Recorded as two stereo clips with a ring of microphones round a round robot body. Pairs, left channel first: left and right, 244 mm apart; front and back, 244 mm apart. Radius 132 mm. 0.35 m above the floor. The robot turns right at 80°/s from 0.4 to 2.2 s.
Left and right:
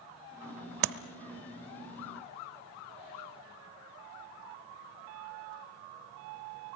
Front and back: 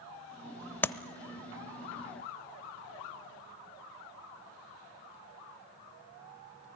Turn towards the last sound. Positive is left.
turn(degrees=30)